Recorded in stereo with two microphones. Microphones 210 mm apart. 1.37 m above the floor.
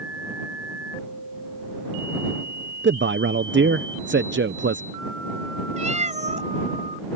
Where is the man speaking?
60° right (ahead or behind).